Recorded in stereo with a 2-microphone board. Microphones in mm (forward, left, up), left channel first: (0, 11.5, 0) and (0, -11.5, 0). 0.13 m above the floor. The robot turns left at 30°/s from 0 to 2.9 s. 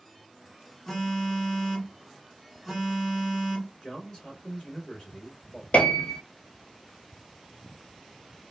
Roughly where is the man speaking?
Left.